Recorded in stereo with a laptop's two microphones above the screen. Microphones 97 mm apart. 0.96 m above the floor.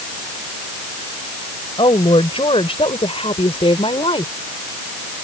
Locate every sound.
1.8 s a woman speaking: 70° left (ahead or behind)